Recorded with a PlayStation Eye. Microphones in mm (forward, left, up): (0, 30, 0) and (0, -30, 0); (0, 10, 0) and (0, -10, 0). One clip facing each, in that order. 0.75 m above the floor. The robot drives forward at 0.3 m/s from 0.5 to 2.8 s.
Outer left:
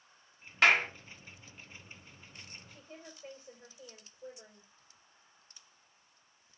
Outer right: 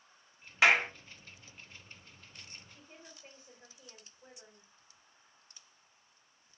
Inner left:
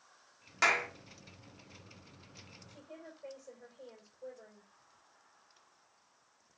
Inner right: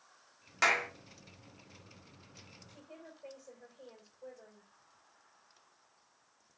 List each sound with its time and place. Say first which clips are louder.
0.6 s a clap: even, even; 5° right (ahead or behind), 0.7 m; by 0.9 s 10° right (ahead or behind), 0.6 m
2.7 s a woman speaking: outer left 4 dB, inner left 2 dB; 5° right (ahead or behind), 2.5 m